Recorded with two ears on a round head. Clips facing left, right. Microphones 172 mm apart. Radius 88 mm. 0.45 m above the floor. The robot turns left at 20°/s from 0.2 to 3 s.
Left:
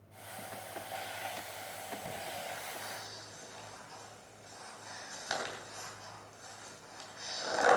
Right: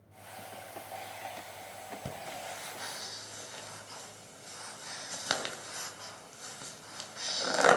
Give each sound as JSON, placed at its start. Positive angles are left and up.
{"t": 2.0, "sound": "breathing", "side_deg": -55, "distance_m": 2.5}